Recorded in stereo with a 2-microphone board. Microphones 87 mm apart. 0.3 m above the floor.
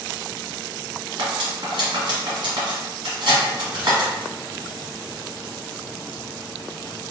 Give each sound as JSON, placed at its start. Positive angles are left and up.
{"t": 1.2, "sound": "cutlery clinking", "side_deg": -65, "distance_m": 1.6}